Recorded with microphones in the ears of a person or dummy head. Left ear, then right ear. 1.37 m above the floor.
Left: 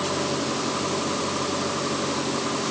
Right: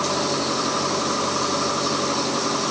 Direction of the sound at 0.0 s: 75° right (ahead or behind).